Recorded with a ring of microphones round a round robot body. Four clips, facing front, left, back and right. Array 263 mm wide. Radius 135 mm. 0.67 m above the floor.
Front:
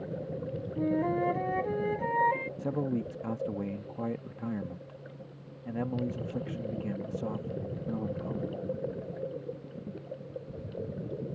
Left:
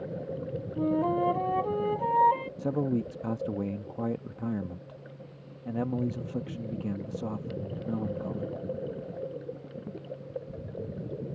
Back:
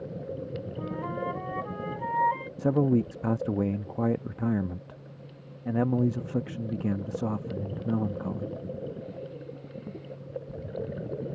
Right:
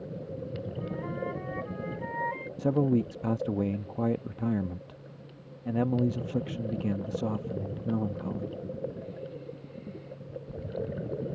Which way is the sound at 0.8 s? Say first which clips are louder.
Left 12 dB, front 7 dB; 60° left.